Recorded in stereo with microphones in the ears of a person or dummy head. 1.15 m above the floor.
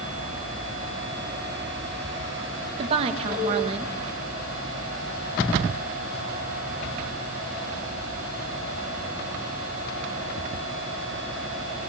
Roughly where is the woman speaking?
Right.